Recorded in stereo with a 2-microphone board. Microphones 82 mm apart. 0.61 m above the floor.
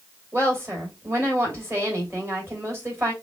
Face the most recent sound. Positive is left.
turn(degrees=-30)  # may be behind; listen again after turning